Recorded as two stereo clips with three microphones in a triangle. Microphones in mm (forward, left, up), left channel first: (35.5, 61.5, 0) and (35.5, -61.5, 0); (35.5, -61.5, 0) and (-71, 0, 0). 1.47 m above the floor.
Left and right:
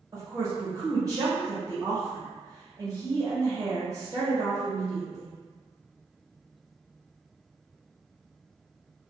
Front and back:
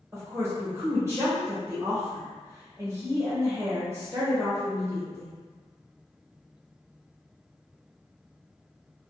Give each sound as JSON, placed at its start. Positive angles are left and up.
{"t": 0.1, "sound": "a woman speaking", "azimuth_deg": -150, "distance_m": 1.1}